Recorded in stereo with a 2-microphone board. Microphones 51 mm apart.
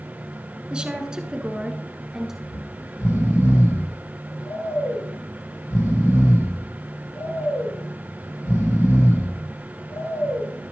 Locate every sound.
0.7 s a woman speaking: 20° right (ahead or behind), 1.1 m; by 2.3 s 10° right (ahead or behind), 1.6 m
2.4 s snoring: 70° left (ahead or behind), 6 m